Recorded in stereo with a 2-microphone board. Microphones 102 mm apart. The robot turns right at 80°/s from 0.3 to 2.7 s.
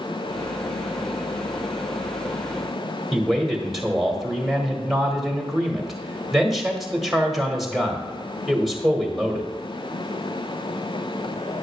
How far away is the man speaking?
About 1.5 m.